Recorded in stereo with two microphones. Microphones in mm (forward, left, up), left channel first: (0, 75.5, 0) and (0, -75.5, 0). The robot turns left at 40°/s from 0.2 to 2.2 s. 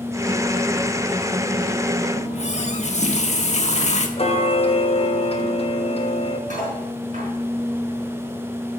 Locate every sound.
2.1 s a running tap: 50° left (ahead or behind), 1.1 m
4.2 s ticking: 40° left (ahead or behind), 1.1 m
6.5 s cutlery clinking: 65° right (ahead or behind), 4.5 m